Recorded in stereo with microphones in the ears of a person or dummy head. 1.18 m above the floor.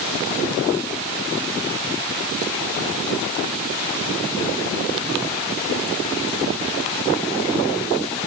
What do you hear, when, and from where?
Only background noise.